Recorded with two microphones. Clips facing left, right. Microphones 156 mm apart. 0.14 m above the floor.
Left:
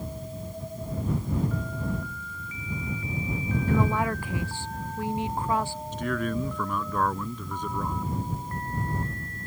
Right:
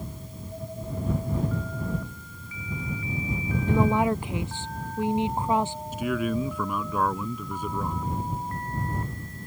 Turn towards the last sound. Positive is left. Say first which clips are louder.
# right 2 dB
turn(degrees=-10)  # may be behind; listen again after turning